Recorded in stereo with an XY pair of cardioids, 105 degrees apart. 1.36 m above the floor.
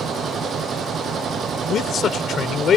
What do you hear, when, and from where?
0.0 s a machine running: 55° right
1.7 s a man speaking: 55° left